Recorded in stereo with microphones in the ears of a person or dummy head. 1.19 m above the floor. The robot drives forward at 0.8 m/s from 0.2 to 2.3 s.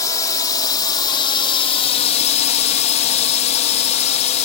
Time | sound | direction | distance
0.0 | a drone | 25° left (ahead or behind) | ?